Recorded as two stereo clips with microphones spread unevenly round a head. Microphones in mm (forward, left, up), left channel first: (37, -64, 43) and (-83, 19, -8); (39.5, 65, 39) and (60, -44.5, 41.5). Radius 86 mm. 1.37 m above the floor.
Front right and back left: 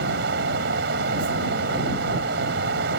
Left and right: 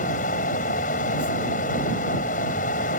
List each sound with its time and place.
0.0 s a fan: 115° left